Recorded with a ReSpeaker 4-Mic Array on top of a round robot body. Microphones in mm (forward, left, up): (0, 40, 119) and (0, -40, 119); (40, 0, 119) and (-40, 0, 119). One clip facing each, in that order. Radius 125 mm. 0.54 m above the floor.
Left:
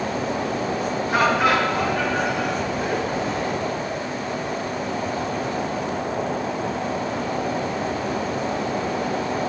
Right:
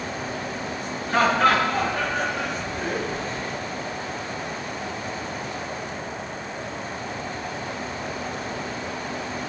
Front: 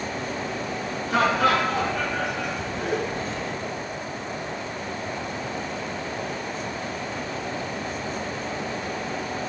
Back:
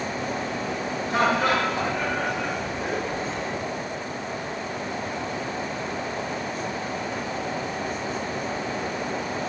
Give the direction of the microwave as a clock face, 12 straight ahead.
No microwave in this recording.